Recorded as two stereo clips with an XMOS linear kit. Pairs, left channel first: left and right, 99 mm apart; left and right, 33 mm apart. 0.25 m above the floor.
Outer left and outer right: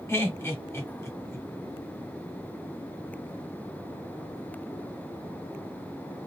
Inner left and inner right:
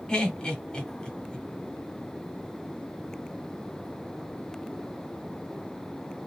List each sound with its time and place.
0.1 s laughter: 30° left (ahead or behind), 1.7 m